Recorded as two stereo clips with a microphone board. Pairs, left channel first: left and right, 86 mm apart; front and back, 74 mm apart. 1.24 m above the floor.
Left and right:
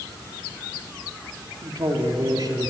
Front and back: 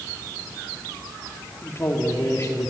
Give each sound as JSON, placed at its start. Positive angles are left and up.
{"t": 1.6, "sound": "a man speaking", "azimuth_deg": -50, "distance_m": 3.5}